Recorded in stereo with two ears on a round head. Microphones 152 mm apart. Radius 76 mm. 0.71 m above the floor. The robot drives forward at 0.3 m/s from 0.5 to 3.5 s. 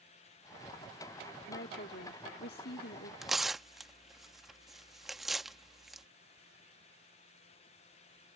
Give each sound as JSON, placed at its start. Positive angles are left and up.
{"t": 1.5, "sound": "a woman speaking", "side_deg": 60}
{"t": 3.2, "sound": "tearing paper", "side_deg": 0}